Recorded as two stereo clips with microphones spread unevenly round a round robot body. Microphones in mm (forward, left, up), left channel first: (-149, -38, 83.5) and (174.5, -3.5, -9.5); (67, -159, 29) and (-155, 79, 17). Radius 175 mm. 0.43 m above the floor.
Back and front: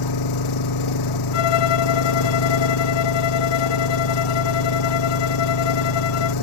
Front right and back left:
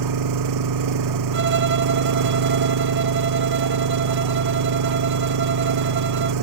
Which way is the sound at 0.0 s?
160° left.